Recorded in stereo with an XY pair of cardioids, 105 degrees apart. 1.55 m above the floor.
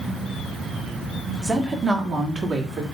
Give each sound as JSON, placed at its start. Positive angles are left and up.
{"t": 1.4, "sound": "a woman speaking", "azimuth_deg": -20, "distance_m": 1.1}